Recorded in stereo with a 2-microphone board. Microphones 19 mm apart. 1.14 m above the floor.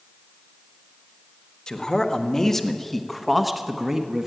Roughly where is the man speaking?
Left.